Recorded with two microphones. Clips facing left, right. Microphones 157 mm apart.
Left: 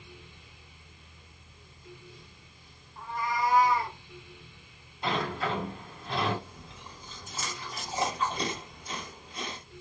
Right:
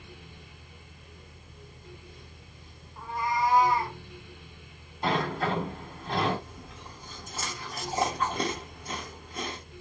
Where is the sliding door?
40° right (ahead or behind), 1.4 m.